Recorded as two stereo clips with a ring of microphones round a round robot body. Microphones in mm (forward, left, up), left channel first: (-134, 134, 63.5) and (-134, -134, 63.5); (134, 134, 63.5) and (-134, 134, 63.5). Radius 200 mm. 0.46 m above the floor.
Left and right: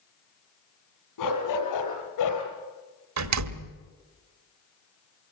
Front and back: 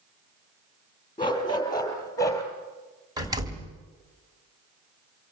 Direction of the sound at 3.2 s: 100° right.